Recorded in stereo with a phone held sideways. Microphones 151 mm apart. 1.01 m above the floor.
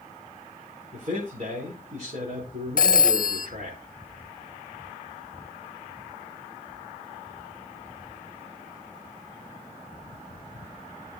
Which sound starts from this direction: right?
A man speaking, at 0.9 s.